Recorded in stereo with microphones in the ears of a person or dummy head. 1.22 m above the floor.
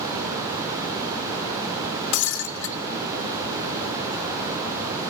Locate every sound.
2.1 s breaking glass: 70° left (ahead or behind), 2.5 m